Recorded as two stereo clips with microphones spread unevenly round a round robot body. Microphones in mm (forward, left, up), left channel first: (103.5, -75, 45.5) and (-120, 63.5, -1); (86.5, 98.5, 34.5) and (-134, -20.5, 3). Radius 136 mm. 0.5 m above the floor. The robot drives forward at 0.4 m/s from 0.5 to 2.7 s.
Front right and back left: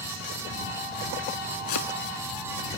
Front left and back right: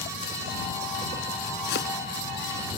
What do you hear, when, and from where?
1.7 s chopping: 25° right